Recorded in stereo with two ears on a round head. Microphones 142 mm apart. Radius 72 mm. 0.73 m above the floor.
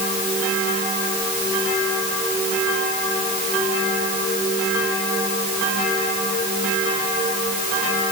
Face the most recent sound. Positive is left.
No sound to turn to.